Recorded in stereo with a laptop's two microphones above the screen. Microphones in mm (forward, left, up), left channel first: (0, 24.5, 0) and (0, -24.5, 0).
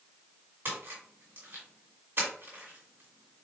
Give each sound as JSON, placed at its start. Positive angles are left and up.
{"t": 0.7, "sound": "a splash", "side_deg": -45, "distance_m": 1.7}